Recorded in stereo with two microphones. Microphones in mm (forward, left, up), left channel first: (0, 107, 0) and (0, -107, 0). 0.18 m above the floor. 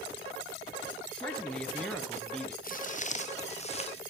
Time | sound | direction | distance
1.1 | a man speaking | 5° left (ahead or behind) | 1.8 m
2.6 | footsteps | 40° left (ahead or behind) | 1.1 m